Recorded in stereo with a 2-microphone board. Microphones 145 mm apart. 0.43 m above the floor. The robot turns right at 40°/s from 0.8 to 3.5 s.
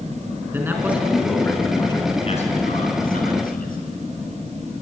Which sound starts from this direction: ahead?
A man speaking, at 0.5 s.